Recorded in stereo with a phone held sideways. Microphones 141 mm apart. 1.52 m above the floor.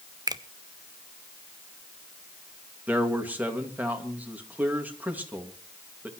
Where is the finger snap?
30° right (ahead or behind), 0.7 m.